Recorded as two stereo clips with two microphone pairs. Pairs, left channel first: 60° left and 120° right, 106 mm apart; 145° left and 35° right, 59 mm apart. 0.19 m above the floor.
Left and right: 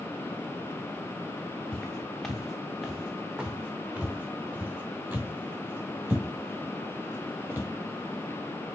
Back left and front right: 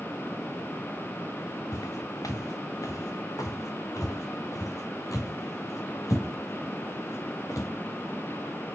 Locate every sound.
1.7 s footsteps: 145° left, 1.7 m; by 7.7 s 170° left, 5 m